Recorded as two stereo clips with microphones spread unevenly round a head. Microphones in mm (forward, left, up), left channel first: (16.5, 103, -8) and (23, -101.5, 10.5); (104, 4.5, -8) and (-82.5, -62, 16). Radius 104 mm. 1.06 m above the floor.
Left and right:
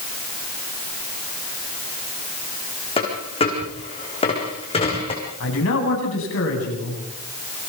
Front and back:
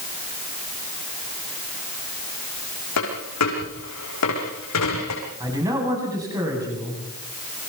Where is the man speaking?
125° left, 9 m.